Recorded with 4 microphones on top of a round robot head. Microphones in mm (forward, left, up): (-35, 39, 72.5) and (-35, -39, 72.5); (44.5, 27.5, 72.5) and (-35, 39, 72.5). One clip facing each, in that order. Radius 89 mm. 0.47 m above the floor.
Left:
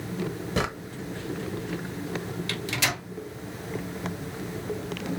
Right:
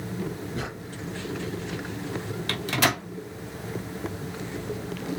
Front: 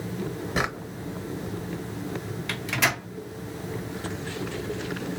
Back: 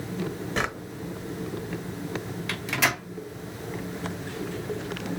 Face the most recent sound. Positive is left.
turn(degrees=-100)